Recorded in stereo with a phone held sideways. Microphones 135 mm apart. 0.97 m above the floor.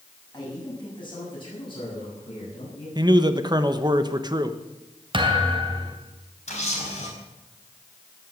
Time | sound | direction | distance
0.3 | a man speaking | 30° left (ahead or behind) | 7.5 m
3.0 | a man speaking | 30° right (ahead or behind) | 1.1 m
5.1 | a thud | 40° right (ahead or behind) | 2.5 m
6.5 | a camera shutter | 55° left (ahead or behind) | 5 m